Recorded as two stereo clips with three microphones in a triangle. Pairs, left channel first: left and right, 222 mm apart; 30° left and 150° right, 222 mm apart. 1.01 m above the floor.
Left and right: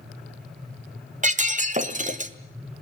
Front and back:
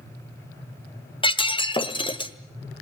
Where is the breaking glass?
40° right, 1.5 m.